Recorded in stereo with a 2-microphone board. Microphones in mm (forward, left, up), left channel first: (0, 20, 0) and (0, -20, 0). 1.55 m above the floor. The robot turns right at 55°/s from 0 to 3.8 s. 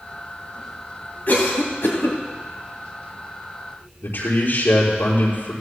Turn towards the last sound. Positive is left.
turn(degrees=80)